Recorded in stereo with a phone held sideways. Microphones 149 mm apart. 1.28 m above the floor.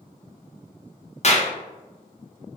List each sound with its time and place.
1.2 s a clap: 50° left (ahead or behind), 0.7 m